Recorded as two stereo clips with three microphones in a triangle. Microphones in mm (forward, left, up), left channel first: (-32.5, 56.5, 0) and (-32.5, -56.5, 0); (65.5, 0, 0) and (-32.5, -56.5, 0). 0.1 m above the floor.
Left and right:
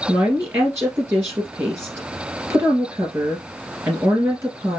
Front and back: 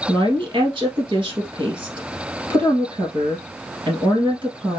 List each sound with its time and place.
0.1 s a woman speaking: 150° right, 2 m